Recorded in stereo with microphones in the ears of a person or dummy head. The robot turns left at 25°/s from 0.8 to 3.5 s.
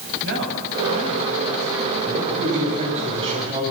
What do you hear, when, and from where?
0.2 s a man speaking: 70° right (ahead or behind), 9.5 m; by 1.9 s 80° right, 9.5 m
2.0 s a man speaking: 125° right, 7.5 m; by 3.6 s 160° right, 7.5 m